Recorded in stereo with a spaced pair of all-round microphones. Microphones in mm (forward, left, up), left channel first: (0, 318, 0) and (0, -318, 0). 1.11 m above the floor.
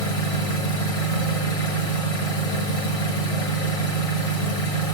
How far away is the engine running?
About 1.6 m.